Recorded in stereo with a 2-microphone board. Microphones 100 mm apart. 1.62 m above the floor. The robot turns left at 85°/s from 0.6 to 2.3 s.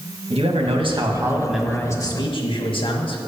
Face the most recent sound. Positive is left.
turn(degrees=120)